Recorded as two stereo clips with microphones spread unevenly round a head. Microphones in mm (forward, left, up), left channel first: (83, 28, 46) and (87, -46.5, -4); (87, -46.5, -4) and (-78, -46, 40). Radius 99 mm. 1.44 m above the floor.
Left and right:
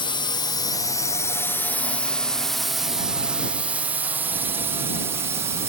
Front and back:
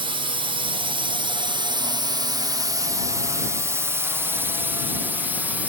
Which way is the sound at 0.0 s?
120° left.